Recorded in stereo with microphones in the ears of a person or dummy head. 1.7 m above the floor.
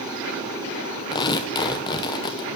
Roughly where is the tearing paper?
Left.